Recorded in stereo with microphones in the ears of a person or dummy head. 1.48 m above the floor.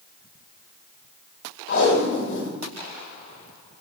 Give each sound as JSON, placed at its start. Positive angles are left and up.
{"t": 1.7, "sound": "tape being pulled", "side_deg": 55, "distance_m": 4.0}